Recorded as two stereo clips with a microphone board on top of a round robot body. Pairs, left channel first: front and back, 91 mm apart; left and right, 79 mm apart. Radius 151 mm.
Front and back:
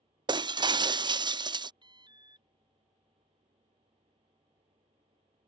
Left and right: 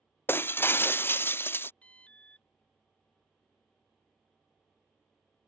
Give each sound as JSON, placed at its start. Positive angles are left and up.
{"t": 0.3, "sound": "breaking glass", "azimuth_deg": 150}
{"t": 1.8, "sound": "an alarm", "azimuth_deg": 160}